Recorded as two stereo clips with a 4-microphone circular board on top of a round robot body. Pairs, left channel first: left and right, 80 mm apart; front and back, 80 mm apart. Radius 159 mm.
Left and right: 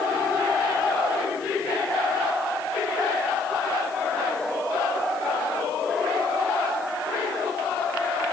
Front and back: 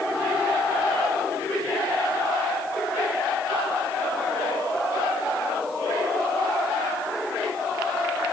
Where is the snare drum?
I don't hear a snare drum.